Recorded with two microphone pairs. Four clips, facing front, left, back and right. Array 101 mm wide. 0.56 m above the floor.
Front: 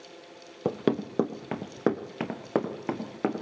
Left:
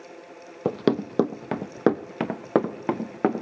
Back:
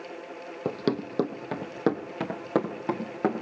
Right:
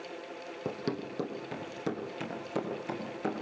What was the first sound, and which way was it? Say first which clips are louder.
Running footsteps: left 12 dB, front 1 dB; 75° left.